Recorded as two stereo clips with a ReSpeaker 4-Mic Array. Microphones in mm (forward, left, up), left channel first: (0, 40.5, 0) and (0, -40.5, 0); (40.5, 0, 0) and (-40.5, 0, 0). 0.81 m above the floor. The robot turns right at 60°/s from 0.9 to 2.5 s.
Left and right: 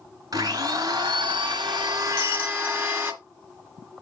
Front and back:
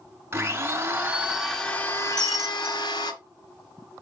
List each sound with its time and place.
0.3 s a blender: 120° right, 1.9 m; by 3.1 s 25° right, 1.9 m
2.1 s breaking glass: 80° left, 5 m; by 2.8 s 100° left, 5 m